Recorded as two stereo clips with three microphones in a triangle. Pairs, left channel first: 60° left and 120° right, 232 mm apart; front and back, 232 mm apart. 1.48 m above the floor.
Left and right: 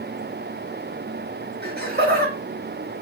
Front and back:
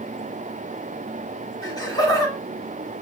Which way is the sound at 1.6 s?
75° right.